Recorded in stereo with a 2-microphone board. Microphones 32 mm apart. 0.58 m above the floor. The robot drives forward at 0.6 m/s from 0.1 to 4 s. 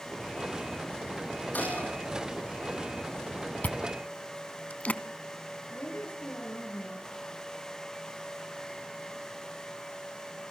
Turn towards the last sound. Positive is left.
turn(degrees=85)